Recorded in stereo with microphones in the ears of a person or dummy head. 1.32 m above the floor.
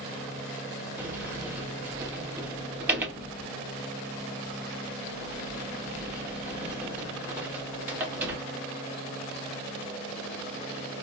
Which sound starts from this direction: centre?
A sliding door, at 1.0 s.